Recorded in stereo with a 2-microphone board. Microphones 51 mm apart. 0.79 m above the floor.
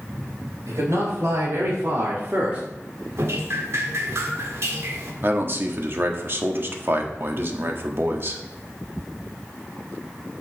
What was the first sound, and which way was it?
A man speaking, 70° right (ahead or behind).